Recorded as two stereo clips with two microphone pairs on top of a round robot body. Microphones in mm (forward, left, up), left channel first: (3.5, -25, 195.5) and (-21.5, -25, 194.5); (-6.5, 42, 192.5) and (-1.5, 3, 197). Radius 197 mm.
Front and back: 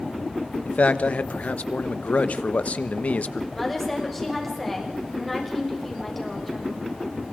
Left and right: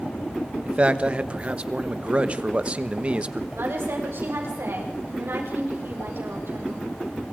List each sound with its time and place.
0.7 s a man speaking: 25° right, 1.2 m
3.5 s a woman speaking: 85° right, 6.5 m